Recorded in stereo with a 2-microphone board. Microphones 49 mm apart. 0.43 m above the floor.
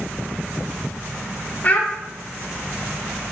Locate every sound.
1.6 s a child speaking: 35° left (ahead or behind), 0.6 m